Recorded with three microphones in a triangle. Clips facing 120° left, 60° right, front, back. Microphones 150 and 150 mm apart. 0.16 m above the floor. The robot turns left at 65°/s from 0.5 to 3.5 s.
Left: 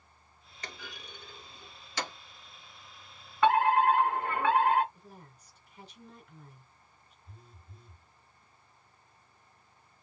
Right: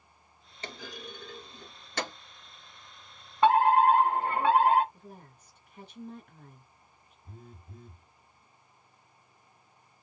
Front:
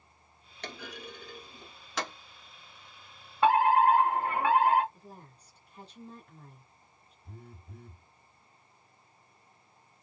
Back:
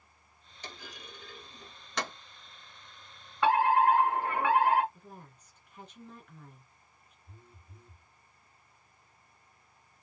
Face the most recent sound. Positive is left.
turn(degrees=-15)